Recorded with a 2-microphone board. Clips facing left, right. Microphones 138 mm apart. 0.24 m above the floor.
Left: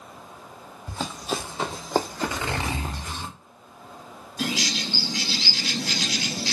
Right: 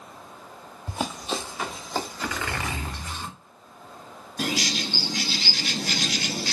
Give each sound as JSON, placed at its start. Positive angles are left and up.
{"t": 0.9, "sound": "running footsteps", "side_deg": -20, "distance_m": 0.5}
{"t": 2.2, "sound": "a zipper", "side_deg": 30, "distance_m": 0.8}
{"t": 4.4, "sound": "a bird", "side_deg": -55, "distance_m": 0.6}